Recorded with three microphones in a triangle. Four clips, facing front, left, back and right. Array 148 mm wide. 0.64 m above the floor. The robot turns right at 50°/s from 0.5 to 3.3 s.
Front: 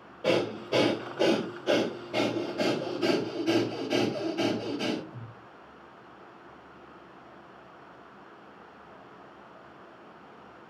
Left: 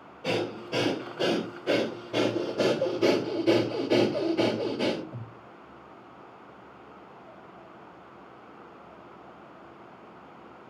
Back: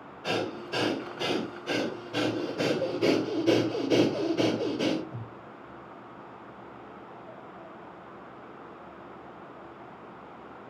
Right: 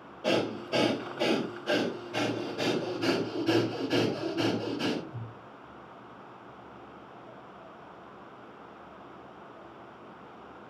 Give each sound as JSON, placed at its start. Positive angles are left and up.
{"t": 0.2, "sound": "breathing", "azimuth_deg": -10, "distance_m": 3.0}